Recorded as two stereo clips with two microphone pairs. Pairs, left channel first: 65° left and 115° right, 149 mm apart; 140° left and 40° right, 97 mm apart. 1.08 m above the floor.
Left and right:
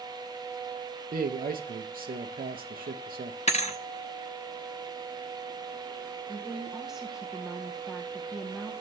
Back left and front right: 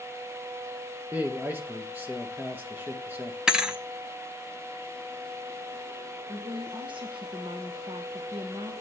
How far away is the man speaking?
About 0.6 m.